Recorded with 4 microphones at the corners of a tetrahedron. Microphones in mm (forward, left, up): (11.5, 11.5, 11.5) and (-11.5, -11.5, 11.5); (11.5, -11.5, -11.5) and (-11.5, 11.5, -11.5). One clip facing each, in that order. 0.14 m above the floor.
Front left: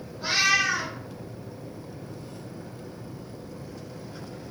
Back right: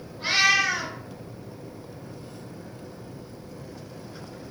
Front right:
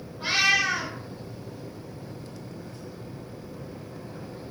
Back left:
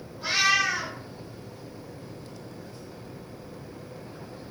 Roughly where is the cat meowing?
Right.